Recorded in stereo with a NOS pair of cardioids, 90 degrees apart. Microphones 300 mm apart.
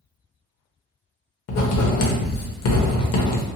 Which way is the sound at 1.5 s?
55° left.